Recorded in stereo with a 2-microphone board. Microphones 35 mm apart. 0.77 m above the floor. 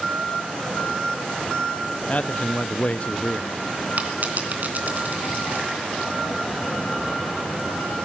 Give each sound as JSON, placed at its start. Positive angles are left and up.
{"t": 2.1, "sound": "a man speaking", "side_deg": 45, "distance_m": 0.5}
{"t": 4.0, "sound": "a dropped coin", "side_deg": -50, "distance_m": 2.5}